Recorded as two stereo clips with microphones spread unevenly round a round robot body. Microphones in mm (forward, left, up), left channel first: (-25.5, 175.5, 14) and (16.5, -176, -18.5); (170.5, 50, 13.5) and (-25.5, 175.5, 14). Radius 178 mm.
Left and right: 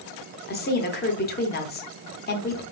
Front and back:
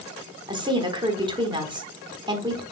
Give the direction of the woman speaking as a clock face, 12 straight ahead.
8 o'clock.